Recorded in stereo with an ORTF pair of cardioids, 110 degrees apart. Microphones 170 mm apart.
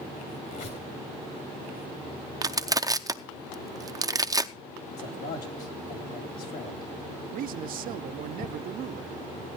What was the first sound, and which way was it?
A squeak, 65° left.